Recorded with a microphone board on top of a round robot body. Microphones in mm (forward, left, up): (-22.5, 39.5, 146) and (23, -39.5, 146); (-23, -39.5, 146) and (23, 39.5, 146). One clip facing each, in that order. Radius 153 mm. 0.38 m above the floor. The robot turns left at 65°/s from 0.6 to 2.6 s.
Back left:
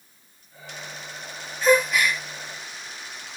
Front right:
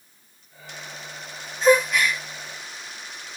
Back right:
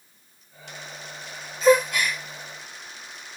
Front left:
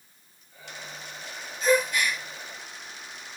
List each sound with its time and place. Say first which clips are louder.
1.6 s a gasp: front right 1 dB, back right 5 dB; 130° right, 0.6 m; by 2.2 s 165° right, 0.6 m